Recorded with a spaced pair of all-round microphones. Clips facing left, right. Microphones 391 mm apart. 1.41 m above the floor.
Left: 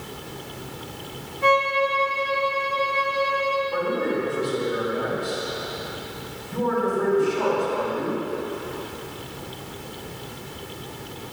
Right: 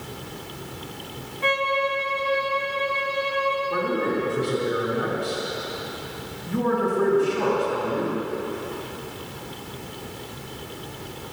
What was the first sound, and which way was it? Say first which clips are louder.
A violin: left 3 dB; 55° left (ahead or behind).